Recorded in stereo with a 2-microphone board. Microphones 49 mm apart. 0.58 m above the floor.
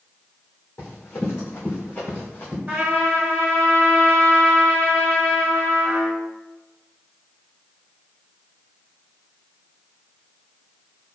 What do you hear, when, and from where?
0.8 s running footsteps: 65° left (ahead or behind), 1.8 m; by 2.6 s 40° left (ahead or behind), 2.0 m
2.7 s a trumpet: 40° right (ahead or behind), 1.1 m